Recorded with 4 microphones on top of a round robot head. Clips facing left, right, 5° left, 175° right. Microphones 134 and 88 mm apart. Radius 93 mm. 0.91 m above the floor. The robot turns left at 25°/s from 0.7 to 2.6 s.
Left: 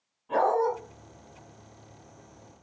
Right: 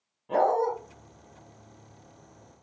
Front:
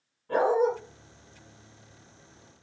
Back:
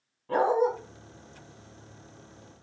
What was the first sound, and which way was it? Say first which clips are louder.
A dog barking: even, even; 140° right.